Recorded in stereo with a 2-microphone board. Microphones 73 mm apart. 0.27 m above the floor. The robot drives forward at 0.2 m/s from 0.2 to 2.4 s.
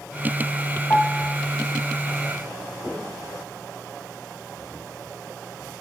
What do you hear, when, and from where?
0.9 s a piano: 40° left (ahead or behind), 0.7 m; by 1.4 s 45° left (ahead or behind), 0.7 m